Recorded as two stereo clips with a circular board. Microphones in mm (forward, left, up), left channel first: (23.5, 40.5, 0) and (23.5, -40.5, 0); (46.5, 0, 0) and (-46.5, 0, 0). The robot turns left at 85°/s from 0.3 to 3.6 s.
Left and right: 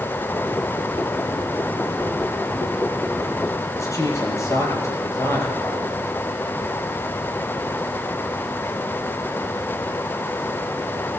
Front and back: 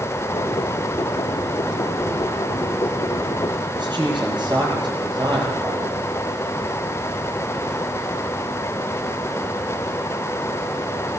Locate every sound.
3.8 s a man speaking: 140° left, 8.5 m